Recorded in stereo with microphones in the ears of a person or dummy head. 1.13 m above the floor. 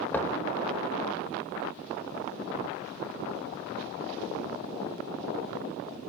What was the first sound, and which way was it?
Knocking, 10° left (ahead or behind).